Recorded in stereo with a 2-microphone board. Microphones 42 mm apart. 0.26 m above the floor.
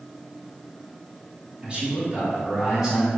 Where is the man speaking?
30° right (ahead or behind), 1.8 m; by 3.1 s 10° right (ahead or behind), 2 m.